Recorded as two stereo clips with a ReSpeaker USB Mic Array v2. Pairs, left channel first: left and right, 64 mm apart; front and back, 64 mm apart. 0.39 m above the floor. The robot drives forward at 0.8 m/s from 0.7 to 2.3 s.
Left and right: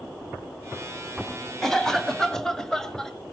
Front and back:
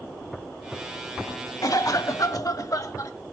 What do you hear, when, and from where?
1.6 s a cough: 5° left, 2 m; by 3.1 s 10° left, 1.7 m